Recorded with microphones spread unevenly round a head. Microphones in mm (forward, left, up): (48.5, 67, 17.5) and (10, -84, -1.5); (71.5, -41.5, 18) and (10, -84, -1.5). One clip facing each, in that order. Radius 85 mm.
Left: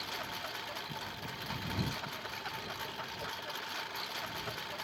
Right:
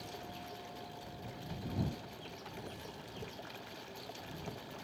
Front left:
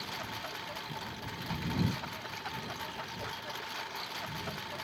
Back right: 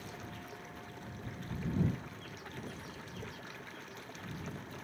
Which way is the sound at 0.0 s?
70° left.